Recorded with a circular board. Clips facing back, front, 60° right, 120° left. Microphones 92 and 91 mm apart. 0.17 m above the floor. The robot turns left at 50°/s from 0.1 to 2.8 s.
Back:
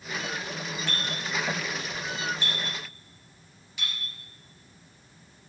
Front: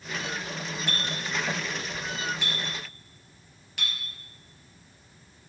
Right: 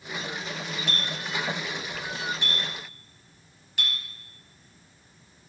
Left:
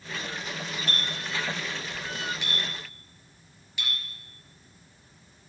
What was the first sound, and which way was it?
A clink, 75° left.